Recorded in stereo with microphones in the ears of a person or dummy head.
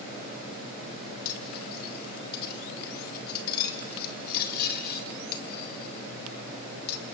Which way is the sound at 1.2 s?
55° left (ahead or behind).